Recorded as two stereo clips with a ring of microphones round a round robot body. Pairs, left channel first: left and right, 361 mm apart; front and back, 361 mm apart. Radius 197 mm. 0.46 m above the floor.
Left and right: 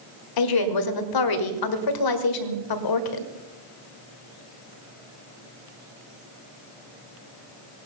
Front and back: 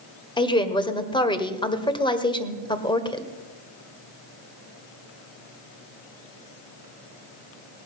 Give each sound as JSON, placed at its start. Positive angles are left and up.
{"t": 0.4, "sound": "a woman speaking", "azimuth_deg": 75, "distance_m": 1.6}